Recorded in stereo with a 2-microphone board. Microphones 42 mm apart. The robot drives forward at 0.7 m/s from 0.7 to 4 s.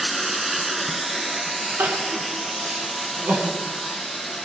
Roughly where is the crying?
Right.